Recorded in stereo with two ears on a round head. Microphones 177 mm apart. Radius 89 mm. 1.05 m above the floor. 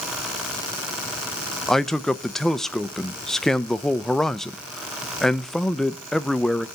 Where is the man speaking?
Centre (ahead or behind), 0.5 m.